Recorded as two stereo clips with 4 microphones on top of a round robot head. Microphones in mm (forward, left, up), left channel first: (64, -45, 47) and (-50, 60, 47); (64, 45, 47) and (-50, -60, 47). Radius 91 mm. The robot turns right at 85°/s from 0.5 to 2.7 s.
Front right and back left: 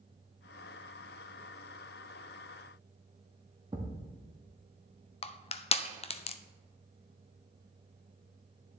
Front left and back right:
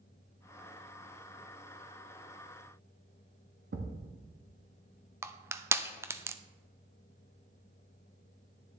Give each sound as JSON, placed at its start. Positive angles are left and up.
{"t": 3.7, "sound": "a thud", "azimuth_deg": -155, "distance_m": 1.0}
{"t": 5.2, "sound": "crushing", "azimuth_deg": -70, "distance_m": 0.6}